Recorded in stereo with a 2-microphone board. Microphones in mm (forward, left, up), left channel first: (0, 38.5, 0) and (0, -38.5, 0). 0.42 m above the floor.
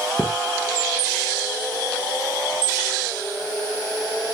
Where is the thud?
5° right (ahead or behind), 1.5 m.